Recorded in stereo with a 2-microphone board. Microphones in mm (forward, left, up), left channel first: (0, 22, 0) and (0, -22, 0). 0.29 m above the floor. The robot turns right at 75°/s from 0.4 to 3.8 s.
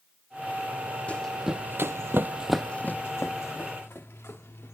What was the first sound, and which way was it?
Running footsteps, 30° left (ahead or behind).